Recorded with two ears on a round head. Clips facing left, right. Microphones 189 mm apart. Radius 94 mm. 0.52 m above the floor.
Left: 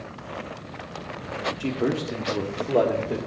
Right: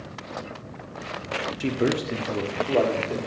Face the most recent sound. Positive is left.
turn(degrees=15)  # may be behind; listen again after turning